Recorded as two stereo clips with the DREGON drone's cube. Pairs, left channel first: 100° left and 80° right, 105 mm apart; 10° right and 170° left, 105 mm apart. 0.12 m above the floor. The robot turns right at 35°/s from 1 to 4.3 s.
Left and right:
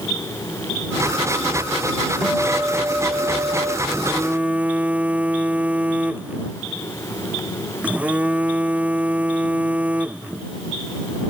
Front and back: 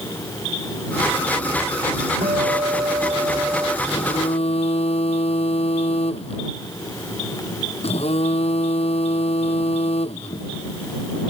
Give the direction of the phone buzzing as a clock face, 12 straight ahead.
1 o'clock.